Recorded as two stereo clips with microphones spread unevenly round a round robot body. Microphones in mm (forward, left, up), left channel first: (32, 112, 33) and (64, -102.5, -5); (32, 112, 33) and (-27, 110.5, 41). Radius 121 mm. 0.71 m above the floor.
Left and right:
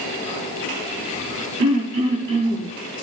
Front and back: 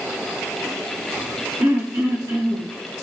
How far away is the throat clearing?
About 4.5 m.